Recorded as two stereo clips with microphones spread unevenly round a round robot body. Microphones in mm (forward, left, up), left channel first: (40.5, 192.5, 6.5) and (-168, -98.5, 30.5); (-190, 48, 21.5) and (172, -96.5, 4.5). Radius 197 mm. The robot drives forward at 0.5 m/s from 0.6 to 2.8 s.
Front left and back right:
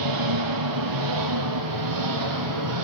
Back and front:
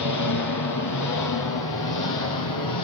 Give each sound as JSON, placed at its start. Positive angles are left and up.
{"t": 0.0, "sound": "an engine running", "azimuth_deg": -155, "distance_m": 4.5}